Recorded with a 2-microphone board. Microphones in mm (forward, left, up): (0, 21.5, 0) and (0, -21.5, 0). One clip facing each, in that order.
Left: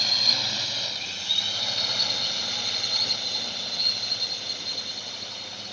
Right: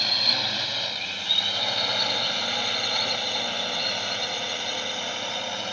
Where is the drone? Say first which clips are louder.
Right 1 dB; 15° right (ahead or behind); by 5.7 s 65° right (ahead or behind).